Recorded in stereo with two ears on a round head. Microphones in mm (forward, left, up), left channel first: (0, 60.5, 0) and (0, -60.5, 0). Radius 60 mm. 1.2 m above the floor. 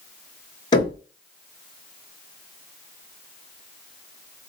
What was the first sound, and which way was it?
Knocking, 35° left (ahead or behind).